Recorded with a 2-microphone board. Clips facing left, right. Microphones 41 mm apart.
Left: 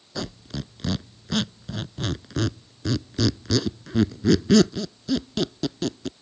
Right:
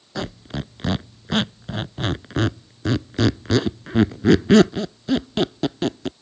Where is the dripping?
I don't hear dripping.